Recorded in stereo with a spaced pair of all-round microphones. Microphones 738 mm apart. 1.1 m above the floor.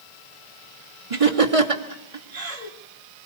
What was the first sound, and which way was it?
Laughter, 45° right (ahead or behind).